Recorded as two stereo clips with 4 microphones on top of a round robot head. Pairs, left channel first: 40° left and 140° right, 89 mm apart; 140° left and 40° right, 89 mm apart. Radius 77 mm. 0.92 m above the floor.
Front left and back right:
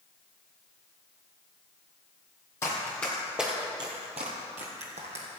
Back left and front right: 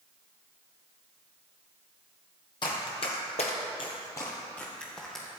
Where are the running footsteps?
100° left, 1.7 m; by 5.2 s 135° right, 2.5 m.